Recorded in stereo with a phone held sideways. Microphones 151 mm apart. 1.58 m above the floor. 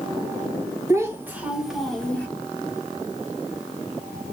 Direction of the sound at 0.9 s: 20° right (ahead or behind).